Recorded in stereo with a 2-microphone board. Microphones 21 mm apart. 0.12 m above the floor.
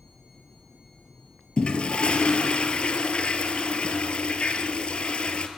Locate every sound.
1.6 s a toilet flushing: 60° left (ahead or behind), 0.7 m